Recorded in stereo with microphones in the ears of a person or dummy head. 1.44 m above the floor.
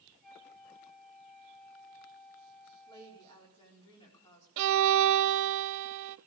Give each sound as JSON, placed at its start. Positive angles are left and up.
{"t": 0.2, "sound": "a flute", "side_deg": 5, "distance_m": 6.0}
{"t": 2.9, "sound": "a woman speaking", "side_deg": 30, "distance_m": 4.5}
{"t": 4.6, "sound": "a violin", "side_deg": -75, "distance_m": 0.7}